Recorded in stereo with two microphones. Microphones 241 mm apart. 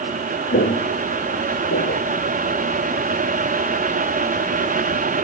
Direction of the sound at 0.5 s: 50° left (ahead or behind).